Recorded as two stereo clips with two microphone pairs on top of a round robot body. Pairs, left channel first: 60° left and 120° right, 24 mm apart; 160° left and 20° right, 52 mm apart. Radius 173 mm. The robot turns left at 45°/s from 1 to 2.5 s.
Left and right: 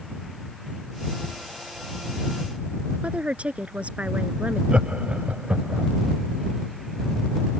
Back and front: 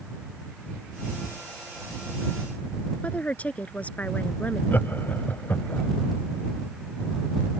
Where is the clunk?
I don't hear a clunk.